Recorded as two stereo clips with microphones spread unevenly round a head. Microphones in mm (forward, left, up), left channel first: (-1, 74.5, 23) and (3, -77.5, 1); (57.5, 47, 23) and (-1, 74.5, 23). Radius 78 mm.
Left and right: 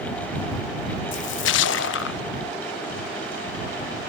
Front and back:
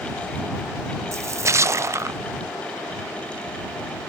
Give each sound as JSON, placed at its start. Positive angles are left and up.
{"t": 1.1, "sound": "a splash", "azimuth_deg": 105}